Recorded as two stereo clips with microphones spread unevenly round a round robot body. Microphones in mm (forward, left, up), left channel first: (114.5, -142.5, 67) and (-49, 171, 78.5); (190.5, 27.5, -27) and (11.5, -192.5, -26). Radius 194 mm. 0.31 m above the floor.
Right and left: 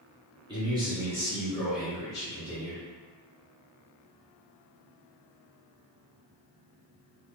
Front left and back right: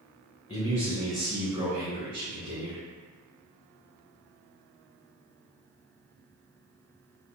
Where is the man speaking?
55° left, 1.4 m; by 2.8 s 145° right, 2 m.